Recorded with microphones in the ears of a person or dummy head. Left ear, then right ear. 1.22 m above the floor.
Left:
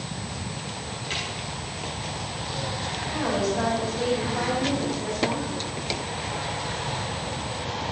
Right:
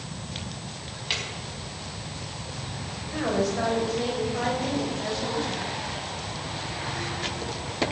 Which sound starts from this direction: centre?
A woman speaking, at 3.1 s.